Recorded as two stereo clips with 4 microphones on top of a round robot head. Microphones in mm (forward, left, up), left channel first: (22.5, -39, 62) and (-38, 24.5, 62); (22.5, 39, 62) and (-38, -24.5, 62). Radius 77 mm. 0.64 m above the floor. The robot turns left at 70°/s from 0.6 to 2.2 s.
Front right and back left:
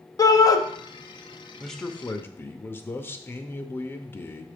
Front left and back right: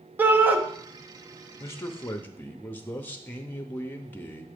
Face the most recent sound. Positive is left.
turn(degrees=-5)